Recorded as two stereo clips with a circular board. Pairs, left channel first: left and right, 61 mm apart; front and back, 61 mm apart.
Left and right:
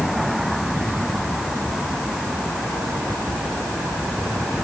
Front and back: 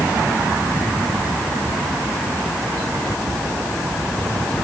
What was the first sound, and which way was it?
Only background noise.